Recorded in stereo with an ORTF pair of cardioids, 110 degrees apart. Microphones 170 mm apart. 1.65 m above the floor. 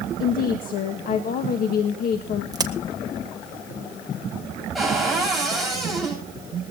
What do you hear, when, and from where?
0.2 s a woman speaking: 60° left, 1.7 m
2.5 s a crack: 20° right, 1.7 m
4.8 s a cupboard door: straight ahead, 9.5 m